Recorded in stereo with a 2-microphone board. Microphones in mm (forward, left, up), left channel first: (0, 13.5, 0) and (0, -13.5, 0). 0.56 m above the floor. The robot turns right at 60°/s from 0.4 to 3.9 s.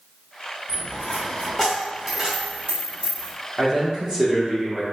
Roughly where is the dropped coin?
Left.